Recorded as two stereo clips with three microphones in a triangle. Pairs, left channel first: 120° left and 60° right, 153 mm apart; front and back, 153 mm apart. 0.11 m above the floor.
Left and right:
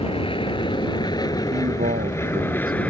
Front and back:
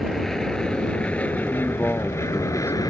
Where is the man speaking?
75° right.